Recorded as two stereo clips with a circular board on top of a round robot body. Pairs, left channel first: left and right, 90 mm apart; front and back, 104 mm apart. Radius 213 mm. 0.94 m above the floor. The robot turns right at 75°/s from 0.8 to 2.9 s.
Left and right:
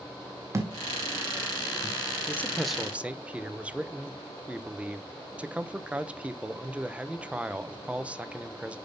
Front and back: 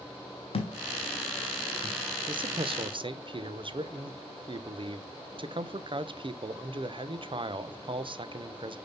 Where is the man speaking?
150° left, 1.1 m; by 8.8 s 165° right, 1.1 m.